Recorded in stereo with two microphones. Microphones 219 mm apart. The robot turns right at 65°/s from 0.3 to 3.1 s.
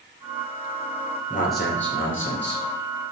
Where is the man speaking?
40° left, 2.5 m; by 2.6 s 125° left, 2.5 m.